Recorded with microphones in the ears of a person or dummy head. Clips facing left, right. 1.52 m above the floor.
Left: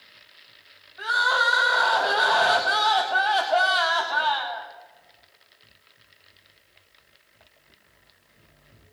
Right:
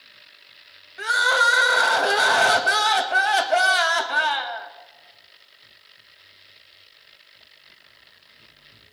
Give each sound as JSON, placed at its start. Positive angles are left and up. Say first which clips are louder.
{"t": 1.0, "sound": "crying", "louder": "right 3 dB", "side_deg": -30, "distance_m": 1.2}